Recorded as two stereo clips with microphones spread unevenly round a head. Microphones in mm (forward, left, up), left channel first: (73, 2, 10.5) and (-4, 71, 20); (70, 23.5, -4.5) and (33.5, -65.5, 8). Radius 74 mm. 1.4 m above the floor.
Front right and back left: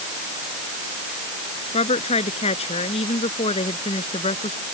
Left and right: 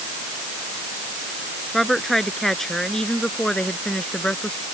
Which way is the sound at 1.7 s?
20° right.